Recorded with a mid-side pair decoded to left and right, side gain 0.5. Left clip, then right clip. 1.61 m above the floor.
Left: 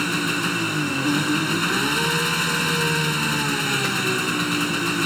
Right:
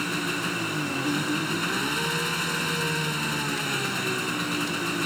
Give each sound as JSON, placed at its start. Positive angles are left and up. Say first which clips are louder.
{"t": 0.0, "sound": "an engine running", "louder": "left 5 dB", "azimuth_deg": 35}